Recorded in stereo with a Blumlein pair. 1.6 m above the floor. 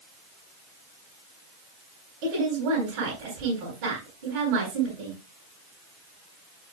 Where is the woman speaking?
45° right, 9.5 m.